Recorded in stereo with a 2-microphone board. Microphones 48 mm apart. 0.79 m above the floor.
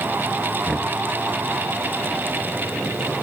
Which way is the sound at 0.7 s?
Centre (ahead or behind).